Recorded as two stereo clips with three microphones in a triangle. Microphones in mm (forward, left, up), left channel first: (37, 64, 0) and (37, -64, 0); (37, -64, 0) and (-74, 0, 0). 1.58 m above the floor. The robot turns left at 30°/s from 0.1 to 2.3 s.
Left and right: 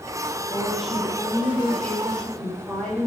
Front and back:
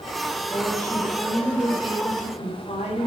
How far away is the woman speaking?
About 8.5 m.